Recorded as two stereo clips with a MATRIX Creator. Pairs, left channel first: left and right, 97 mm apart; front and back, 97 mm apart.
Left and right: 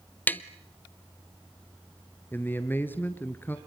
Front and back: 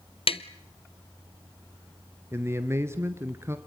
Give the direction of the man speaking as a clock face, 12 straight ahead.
7 o'clock.